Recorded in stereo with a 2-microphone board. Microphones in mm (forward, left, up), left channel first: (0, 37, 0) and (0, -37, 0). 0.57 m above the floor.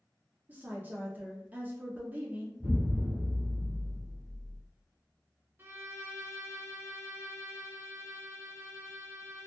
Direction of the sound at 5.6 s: 35° right (ahead or behind).